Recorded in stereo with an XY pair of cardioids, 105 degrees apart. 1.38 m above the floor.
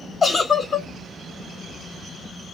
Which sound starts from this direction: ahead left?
A giggle, at 0.2 s.